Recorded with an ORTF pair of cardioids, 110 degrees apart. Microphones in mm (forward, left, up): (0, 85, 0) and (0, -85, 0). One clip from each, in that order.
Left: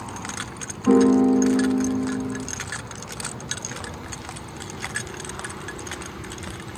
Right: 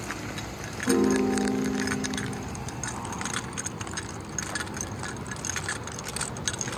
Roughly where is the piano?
Ahead left.